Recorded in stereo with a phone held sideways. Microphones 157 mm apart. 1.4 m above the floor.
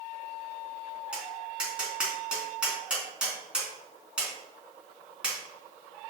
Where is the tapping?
5° right (ahead or behind), 3 m.